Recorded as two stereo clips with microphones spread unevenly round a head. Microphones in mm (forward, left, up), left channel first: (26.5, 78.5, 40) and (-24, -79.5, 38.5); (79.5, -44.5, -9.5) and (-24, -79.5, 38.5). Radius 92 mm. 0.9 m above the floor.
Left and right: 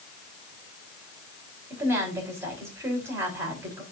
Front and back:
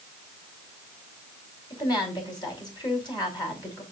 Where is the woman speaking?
30° right, 5 m.